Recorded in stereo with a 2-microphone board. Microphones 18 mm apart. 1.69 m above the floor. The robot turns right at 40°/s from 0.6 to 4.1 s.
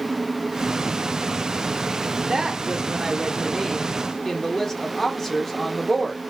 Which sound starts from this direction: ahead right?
A woman speaking, at 2.3 s.